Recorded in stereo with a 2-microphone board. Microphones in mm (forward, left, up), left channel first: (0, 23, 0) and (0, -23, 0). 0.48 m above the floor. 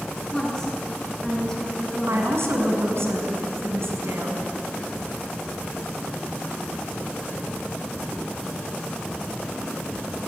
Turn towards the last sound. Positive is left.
turn(degrees=-65)  # may be behind; listen again after turning